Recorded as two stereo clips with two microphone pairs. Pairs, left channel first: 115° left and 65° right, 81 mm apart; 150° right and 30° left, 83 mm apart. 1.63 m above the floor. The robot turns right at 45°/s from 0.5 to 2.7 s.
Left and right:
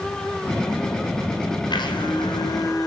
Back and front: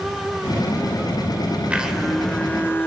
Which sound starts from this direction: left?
A blender, at 1.7 s.